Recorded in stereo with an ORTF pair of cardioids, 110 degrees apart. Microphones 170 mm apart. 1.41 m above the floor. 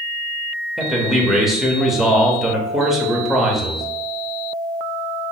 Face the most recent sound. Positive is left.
turn(degrees=0)